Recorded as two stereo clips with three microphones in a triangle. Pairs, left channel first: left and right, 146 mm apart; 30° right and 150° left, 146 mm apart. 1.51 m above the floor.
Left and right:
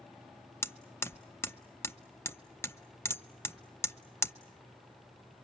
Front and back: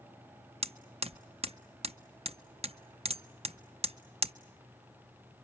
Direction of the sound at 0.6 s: 155° left.